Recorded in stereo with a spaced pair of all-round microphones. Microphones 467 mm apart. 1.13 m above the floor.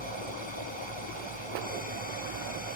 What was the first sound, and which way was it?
A fan, 70° left (ahead or behind).